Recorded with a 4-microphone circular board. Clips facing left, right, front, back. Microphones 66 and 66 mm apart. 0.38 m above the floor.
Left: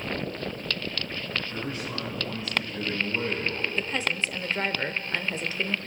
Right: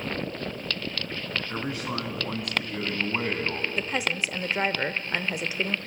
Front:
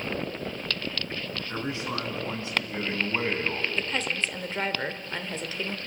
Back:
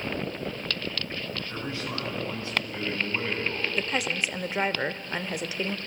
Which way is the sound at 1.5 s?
70° right.